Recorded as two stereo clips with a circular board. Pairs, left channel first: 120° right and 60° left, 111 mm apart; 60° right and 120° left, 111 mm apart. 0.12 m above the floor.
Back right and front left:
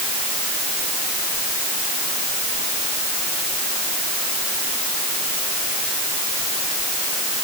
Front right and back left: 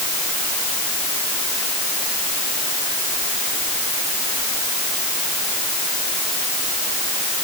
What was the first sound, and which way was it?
Only background noise.